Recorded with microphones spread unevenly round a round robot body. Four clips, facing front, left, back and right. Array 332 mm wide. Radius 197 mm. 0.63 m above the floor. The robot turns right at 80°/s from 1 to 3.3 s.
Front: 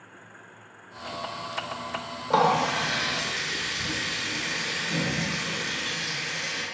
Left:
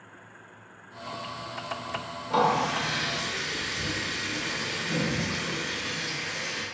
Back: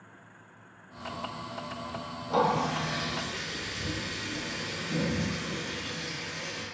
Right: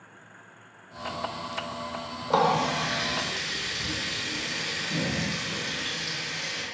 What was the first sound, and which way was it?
A running tap, 35° right.